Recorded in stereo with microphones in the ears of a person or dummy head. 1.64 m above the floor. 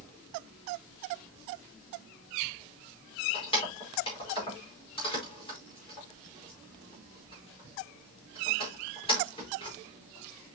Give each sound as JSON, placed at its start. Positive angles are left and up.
{"t": 3.3, "sound": "keys jangling", "side_deg": 25, "distance_m": 4.5}